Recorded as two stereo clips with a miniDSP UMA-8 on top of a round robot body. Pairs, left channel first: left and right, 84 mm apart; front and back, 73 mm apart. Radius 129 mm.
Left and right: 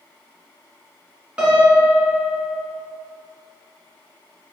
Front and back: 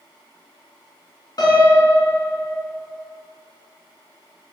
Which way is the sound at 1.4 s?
10° right.